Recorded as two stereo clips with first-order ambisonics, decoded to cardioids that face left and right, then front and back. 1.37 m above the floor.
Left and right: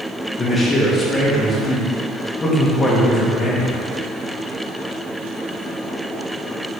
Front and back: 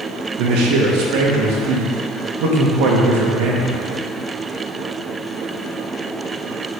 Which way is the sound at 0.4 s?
165° left.